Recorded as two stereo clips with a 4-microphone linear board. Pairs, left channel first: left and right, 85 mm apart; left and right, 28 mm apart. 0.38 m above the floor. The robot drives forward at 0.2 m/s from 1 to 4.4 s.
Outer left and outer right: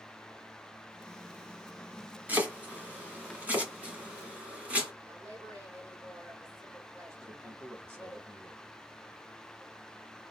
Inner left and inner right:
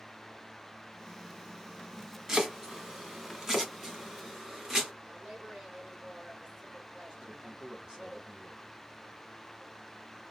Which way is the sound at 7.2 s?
30° right (ahead or behind).